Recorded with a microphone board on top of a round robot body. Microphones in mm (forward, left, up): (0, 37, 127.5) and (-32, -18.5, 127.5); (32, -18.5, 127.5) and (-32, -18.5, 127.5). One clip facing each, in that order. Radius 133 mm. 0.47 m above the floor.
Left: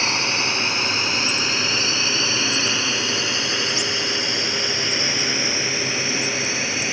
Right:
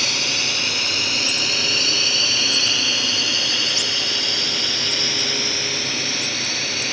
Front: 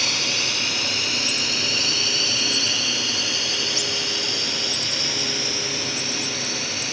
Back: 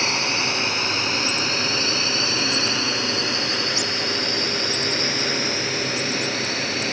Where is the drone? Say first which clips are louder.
Left 3 dB, back 3 dB; 120° left; by 7.0 s 130° left.